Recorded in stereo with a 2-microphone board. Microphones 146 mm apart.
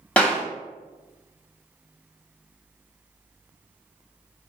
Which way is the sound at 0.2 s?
10° left (ahead or behind).